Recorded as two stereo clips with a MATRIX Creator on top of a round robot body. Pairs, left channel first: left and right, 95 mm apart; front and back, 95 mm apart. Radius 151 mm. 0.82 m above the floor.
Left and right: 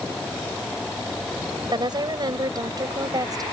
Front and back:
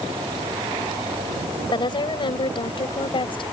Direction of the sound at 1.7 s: 45° right.